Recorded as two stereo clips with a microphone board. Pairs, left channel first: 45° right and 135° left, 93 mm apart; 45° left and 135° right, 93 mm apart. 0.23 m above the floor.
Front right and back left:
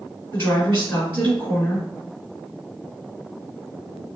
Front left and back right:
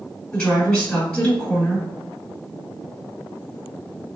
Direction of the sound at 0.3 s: 15° right.